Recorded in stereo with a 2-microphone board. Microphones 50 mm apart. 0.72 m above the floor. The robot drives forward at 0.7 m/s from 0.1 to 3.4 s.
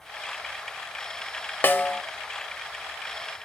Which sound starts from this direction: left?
A snare drum, at 1.6 s.